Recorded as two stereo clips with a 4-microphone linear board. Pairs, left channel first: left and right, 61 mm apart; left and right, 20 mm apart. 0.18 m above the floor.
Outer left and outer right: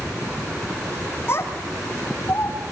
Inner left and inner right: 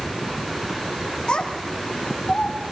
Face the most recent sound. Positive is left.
turn(degrees=45)  # may be behind; listen again after turning